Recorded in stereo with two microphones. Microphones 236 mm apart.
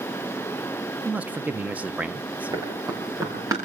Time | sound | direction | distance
1.1 | a man speaking | 5° right (ahead or behind) | 0.6 m
2.5 | running footsteps | 15° right (ahead or behind) | 6.5 m